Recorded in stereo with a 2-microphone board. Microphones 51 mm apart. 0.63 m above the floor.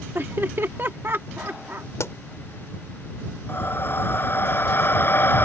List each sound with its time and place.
0.1 s laughter: 45° right (ahead or behind)
2.0 s a pop: 70° left (ahead or behind)
3.5 s breathing: 45° left (ahead or behind)